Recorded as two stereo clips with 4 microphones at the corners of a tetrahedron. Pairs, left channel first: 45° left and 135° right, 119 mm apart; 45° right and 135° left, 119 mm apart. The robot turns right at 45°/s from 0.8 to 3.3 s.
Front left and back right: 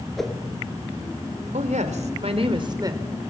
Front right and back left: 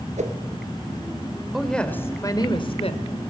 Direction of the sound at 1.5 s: 135° right.